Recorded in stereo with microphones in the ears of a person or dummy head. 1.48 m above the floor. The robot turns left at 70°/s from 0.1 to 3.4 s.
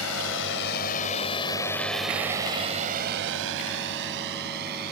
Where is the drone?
85° left; by 4.9 s 50° right (ahead or behind).